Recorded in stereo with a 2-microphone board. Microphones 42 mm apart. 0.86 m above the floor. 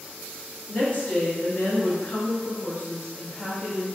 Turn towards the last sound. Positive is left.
turn(degrees=5)  # may be behind; listen again after turning